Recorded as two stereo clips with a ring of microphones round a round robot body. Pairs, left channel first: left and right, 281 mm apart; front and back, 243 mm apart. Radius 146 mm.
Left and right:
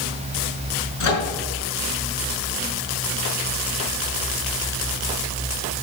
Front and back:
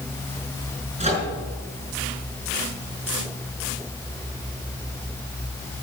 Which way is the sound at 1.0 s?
115° left.